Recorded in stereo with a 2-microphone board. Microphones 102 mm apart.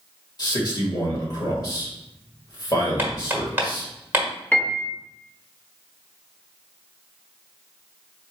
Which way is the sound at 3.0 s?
20° right (ahead or behind).